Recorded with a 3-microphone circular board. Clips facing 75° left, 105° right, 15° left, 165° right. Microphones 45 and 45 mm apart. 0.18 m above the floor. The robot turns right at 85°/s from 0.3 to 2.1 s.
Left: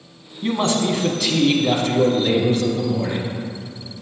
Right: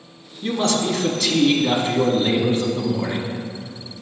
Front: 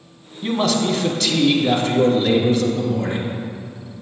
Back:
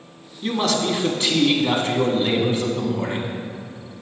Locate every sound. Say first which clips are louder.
0.4 s a man speaking: left 1 dB, front 2 dB; 80° left, 1.1 m; by 3.4 s 135° right, 1.1 m